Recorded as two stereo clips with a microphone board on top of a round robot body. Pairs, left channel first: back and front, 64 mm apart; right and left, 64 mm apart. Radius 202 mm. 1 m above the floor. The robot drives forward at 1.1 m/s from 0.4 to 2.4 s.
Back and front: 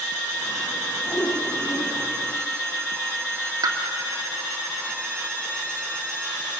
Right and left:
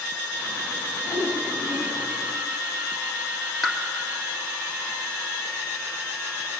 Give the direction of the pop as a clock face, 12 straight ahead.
12 o'clock.